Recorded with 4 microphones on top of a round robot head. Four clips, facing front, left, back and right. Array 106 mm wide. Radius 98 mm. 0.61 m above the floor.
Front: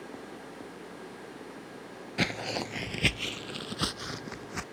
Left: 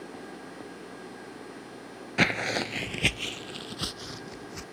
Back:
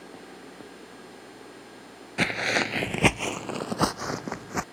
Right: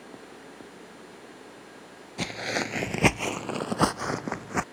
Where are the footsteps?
105° left; by 4.6 s 125° right.